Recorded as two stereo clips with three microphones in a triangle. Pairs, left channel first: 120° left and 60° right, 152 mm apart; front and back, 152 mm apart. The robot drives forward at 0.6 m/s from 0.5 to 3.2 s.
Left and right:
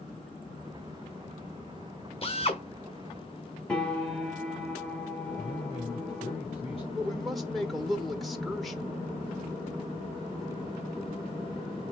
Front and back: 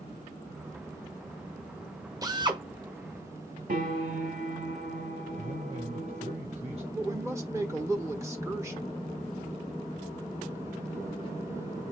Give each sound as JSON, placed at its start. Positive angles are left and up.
{"t": 2.2, "sound": "a drill", "azimuth_deg": 130, "distance_m": 1.2}
{"t": 3.7, "sound": "a piano", "azimuth_deg": -155, "distance_m": 2.0}
{"t": 5.4, "sound": "a man speaking", "azimuth_deg": 155, "distance_m": 2.0}
{"t": 7.0, "sound": "a woman speaking", "azimuth_deg": -150, "distance_m": 1.1}